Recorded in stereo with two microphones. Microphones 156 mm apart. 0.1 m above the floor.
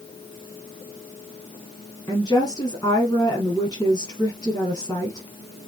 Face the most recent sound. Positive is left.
turn(degrees=25)  # may be behind; listen again after turning